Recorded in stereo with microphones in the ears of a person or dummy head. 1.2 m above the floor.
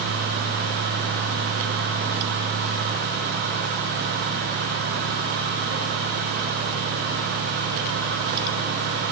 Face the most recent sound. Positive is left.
No sound to turn to.